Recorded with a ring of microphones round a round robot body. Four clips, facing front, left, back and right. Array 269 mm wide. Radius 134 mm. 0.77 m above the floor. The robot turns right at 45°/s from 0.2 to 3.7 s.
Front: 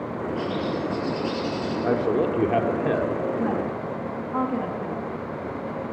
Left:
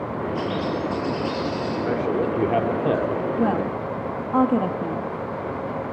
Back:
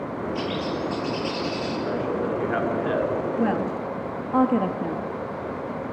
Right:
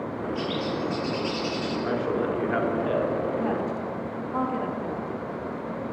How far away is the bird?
About 9 m.